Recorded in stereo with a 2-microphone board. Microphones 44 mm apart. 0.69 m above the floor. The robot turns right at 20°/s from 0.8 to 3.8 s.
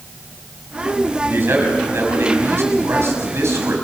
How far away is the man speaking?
About 6 m.